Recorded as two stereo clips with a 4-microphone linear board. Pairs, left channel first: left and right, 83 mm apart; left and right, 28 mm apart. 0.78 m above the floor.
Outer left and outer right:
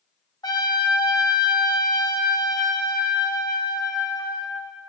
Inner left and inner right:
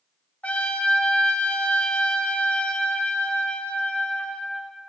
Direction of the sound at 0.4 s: 60° left (ahead or behind).